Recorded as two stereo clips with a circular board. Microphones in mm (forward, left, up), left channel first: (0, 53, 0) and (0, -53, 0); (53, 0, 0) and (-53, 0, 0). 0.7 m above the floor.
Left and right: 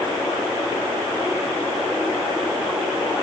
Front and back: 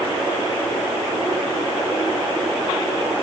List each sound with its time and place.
Only background noise.